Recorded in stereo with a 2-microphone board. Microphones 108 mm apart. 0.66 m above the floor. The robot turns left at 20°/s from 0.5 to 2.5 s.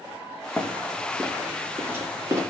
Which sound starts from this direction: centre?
Running footsteps, at 0.6 s.